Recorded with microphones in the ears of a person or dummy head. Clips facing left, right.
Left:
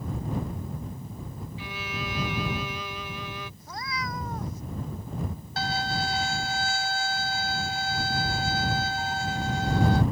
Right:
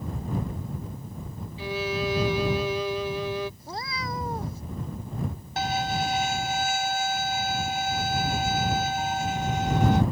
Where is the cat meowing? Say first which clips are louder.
Right 1 dB; 30° right (ahead or behind).